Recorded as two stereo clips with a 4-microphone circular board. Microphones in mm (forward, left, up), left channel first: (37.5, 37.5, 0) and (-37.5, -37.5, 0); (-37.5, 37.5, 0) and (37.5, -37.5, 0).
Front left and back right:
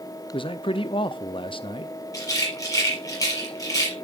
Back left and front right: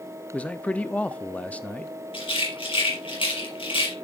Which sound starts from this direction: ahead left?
A man speaking, at 0.3 s.